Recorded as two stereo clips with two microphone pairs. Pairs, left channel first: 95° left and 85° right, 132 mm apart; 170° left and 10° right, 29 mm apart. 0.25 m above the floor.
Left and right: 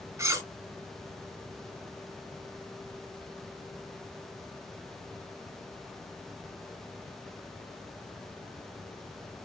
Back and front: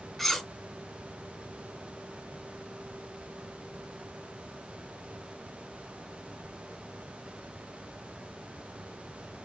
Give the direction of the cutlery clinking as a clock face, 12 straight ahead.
4 o'clock.